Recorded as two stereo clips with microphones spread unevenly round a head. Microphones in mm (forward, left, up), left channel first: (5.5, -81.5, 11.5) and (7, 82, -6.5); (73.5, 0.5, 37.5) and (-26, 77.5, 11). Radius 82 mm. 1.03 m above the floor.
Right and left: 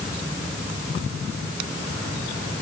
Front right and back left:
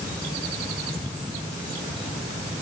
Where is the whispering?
I don't hear whispering.